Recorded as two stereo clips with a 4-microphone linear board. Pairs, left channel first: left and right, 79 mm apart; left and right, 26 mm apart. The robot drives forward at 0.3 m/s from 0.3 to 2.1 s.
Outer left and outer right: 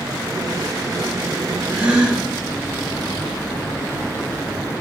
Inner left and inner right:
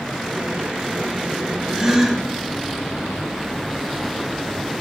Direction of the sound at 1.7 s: 15° right (ahead or behind).